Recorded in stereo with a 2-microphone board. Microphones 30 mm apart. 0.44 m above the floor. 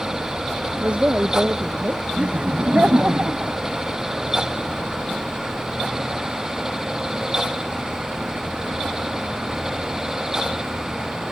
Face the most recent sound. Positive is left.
turn(degrees=-60)  # may be behind; listen again after turning